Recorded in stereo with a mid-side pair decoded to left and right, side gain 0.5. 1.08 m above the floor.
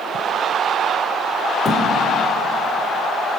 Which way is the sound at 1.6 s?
40° left.